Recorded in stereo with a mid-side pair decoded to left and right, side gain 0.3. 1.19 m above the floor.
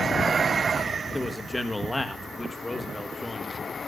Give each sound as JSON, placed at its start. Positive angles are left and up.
{"t": 1.1, "sound": "a man speaking", "azimuth_deg": 25, "distance_m": 1.8}